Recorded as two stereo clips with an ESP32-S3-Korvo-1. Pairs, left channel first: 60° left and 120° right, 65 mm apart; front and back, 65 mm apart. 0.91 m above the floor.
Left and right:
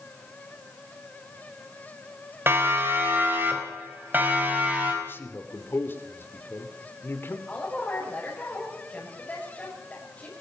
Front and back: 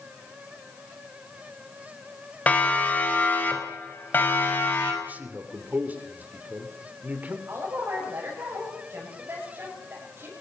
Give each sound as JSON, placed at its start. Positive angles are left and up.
{"t": 2.5, "sound": "a siren", "azimuth_deg": -65, "distance_m": 3.5}
{"t": 5.0, "sound": "a man speaking", "azimuth_deg": 115, "distance_m": 2.5}
{"t": 7.5, "sound": "a woman speaking", "azimuth_deg": 130, "distance_m": 5.5}